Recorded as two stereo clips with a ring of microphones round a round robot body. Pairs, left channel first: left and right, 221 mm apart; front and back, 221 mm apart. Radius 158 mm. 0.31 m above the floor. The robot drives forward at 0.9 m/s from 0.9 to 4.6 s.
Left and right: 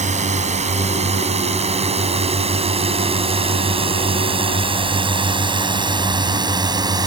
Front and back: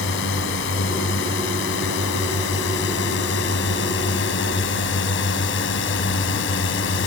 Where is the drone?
35° right; by 7.1 s 20° right.